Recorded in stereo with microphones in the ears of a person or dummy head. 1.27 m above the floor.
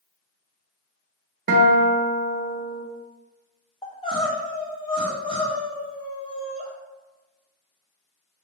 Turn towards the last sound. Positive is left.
turn(degrees=20)  # may be behind; listen again after turning